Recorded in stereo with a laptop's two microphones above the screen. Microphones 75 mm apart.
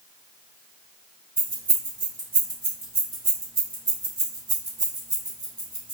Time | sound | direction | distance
1.4 | keys jangling | 85° right | 2.0 m